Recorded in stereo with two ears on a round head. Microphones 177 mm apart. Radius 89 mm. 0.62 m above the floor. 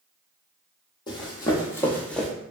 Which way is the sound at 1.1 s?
20° left (ahead or behind).